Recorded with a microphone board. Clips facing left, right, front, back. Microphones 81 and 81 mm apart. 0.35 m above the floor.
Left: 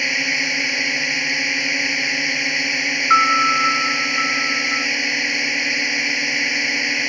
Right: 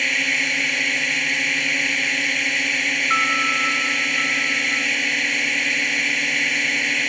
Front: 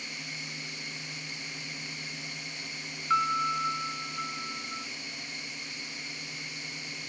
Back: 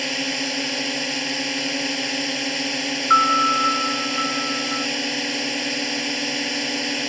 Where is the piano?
140° left.